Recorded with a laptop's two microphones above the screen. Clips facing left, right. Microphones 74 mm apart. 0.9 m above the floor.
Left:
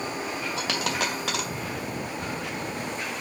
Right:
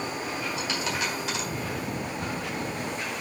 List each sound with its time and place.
0.6 s a dropped coin: 80° left, 2 m